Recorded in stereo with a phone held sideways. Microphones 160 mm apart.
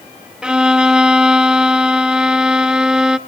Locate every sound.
0.4 s a violin: 5° right (ahead or behind), 0.8 m